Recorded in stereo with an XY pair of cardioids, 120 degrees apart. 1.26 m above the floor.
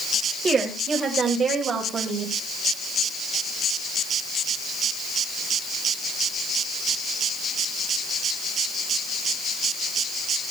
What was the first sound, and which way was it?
A woman speaking, 35° right.